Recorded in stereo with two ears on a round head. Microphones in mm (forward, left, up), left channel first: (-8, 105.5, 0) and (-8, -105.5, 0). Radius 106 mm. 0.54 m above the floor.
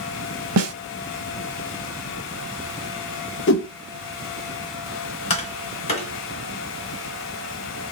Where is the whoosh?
50° left (ahead or behind), 0.6 m.